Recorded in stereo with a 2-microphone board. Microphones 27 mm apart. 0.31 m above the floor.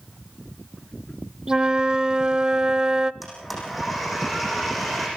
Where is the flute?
30° right (ahead or behind), 0.5 m.